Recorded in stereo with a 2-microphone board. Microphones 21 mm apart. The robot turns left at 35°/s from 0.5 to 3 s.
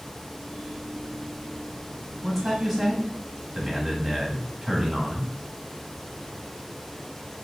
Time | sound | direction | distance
2.2 | a man speaking | 5° right (ahead or behind) | 1.2 m